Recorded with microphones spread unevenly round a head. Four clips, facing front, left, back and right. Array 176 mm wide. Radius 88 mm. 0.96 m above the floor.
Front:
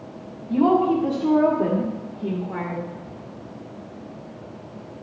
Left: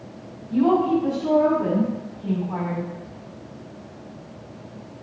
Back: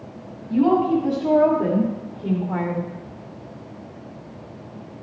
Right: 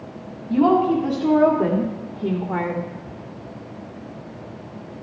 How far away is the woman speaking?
About 3 m.